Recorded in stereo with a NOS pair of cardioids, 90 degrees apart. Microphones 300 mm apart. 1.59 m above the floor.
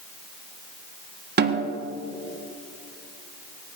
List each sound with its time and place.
1.4 s a snare drum: 35° right, 1.7 m